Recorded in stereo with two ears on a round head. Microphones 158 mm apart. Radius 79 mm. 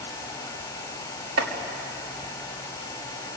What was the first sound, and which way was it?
Chopping, 75° right (ahead or behind).